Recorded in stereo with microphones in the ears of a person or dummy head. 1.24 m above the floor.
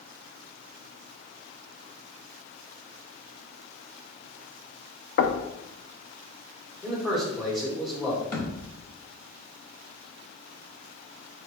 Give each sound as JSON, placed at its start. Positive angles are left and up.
{"t": 5.2, "sound": "knocking", "side_deg": 45, "distance_m": 0.5}
{"t": 6.8, "sound": "a man speaking", "side_deg": -10, "distance_m": 1.0}
{"t": 8.3, "sound": "a thud", "side_deg": 25, "distance_m": 0.8}